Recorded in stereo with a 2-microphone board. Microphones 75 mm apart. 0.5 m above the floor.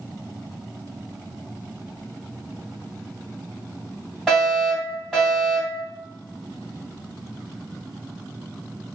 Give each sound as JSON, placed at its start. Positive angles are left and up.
{"t": 4.3, "sound": "a fire alarm", "side_deg": 5, "distance_m": 2.0}